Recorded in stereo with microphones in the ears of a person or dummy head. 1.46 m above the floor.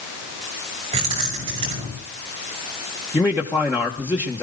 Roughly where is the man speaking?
Centre.